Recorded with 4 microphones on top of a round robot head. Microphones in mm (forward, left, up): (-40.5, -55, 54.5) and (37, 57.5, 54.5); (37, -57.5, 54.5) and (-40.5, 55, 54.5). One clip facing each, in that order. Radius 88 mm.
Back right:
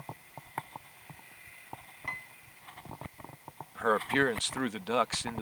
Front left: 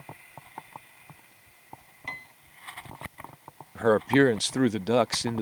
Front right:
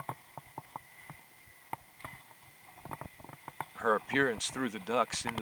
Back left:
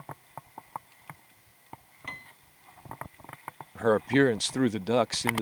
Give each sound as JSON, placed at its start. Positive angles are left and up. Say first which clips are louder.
{"t": 2.1, "sound": "a piano", "louder": "front left 1 dB, back left 8 dB", "azimuth_deg": 120}
{"t": 3.8, "sound": "a man speaking", "louder": "front left 8 dB, back left 8 dB", "azimuth_deg": 85}